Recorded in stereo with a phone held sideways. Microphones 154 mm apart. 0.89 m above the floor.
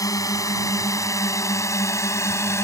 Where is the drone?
20° left (ahead or behind); by 2.6 s 15° left (ahead or behind).